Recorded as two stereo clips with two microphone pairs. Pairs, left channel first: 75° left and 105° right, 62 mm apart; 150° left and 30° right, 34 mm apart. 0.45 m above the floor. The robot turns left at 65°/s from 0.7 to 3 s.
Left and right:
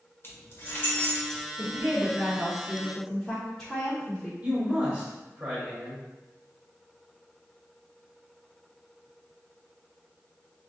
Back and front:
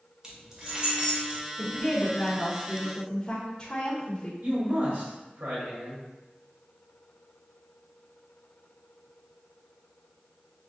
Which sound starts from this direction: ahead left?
Keys jangling, at 0.2 s.